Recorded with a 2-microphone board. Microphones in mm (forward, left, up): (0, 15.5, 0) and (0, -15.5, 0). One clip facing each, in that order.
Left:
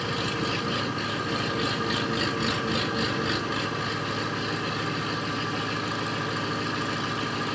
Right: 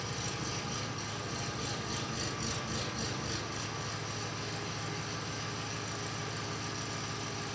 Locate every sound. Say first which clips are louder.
0.0 s an engine running: left 10 dB; 55° left (ahead or behind), 0.9 m